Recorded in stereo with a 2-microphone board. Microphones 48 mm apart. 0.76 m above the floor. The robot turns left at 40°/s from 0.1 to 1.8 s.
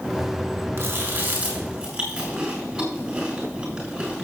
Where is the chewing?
55° right (ahead or behind), 4.5 m; by 4.2 s 15° right (ahead or behind), 4.5 m.